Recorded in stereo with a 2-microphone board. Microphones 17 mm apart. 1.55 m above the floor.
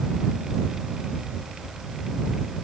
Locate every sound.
Only background noise.